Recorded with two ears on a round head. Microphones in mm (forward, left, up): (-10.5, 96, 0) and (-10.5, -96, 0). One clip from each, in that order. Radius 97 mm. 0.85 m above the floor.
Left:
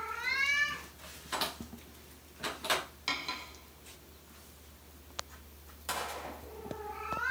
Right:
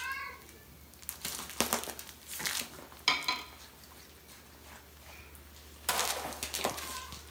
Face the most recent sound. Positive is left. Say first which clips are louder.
# right 4 dB
turn(degrees=-35)  # may be behind; listen again after turning